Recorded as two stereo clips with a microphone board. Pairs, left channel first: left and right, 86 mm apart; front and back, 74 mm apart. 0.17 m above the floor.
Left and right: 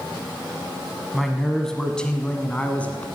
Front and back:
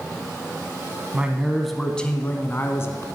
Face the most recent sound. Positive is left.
turn(degrees=20)